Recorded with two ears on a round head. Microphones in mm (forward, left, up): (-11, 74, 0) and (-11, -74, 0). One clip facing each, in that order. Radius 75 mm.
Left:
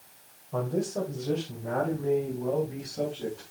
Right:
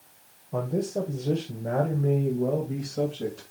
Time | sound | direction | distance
0.5 | a man speaking | 15° right (ahead or behind) | 2.0 m